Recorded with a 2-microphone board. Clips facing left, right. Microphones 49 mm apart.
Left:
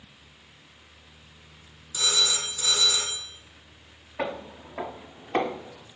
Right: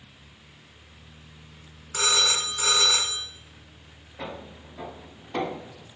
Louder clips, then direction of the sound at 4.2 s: Left 6 dB; 65° left (ahead or behind).